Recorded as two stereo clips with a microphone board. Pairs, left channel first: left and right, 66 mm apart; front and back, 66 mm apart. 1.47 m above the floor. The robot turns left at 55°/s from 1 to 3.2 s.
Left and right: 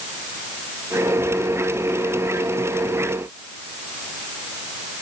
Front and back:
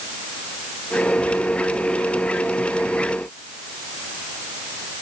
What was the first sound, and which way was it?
Only background noise.